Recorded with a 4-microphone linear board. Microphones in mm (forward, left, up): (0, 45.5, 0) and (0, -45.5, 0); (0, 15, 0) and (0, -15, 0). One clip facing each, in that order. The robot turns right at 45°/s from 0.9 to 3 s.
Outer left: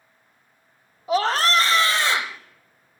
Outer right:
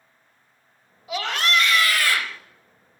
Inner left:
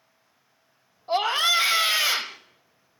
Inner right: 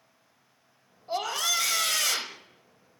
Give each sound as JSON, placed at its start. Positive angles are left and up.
{"t": 1.1, "sound": "a scream", "azimuth_deg": 95, "distance_m": 1.1}